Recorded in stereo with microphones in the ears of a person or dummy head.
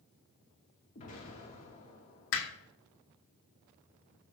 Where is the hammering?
65° left (ahead or behind), 1.9 m.